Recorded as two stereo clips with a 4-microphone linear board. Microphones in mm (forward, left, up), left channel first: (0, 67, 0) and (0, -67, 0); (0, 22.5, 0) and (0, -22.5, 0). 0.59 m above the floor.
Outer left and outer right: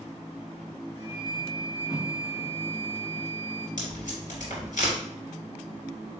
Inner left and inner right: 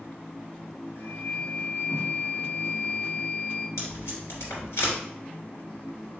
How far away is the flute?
About 1.1 m.